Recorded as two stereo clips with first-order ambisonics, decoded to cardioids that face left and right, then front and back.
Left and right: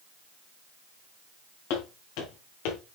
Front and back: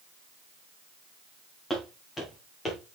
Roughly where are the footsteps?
Left.